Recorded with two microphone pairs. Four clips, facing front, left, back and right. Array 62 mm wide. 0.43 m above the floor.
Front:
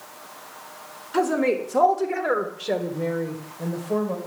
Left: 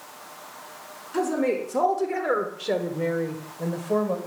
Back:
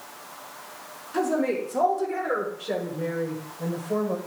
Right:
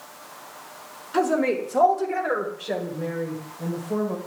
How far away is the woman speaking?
About 1.5 m.